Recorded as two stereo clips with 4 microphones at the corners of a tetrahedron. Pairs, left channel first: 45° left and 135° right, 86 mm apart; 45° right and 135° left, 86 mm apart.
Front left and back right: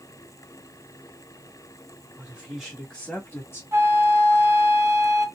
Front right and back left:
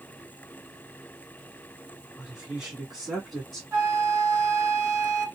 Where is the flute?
175° left, 1.3 m.